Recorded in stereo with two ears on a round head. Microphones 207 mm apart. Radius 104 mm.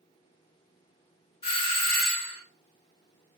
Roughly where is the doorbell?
Left.